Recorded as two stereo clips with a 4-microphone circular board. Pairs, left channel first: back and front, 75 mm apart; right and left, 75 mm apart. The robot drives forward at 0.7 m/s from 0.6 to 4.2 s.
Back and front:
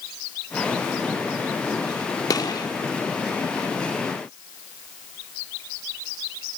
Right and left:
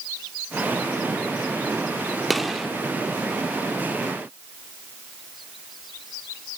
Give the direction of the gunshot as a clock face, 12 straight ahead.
6 o'clock.